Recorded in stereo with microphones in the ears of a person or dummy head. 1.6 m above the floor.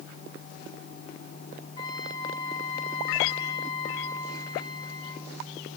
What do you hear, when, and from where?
1.8 s a trumpet: 20° left (ahead or behind), 4.5 m